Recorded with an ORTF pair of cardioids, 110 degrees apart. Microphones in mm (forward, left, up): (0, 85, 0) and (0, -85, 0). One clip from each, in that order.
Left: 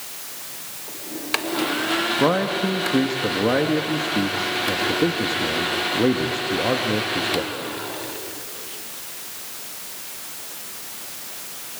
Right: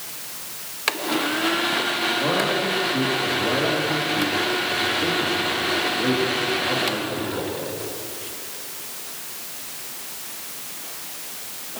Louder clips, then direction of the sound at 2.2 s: Left 1 dB; 65° left.